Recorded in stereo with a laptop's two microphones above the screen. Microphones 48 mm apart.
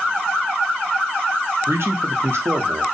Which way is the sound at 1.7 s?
65° right (ahead or behind).